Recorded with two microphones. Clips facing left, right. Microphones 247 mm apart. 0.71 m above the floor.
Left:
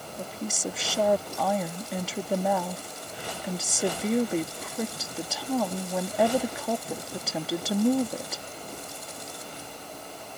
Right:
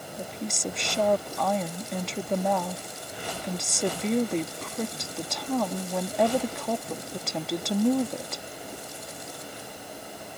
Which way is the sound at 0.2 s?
5° left (ahead or behind).